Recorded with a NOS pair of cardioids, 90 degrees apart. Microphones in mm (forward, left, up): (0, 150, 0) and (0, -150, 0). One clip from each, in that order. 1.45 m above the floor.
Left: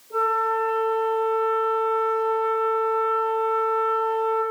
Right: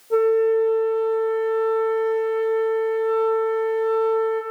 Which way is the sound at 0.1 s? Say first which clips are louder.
Right 4 dB; 45° right.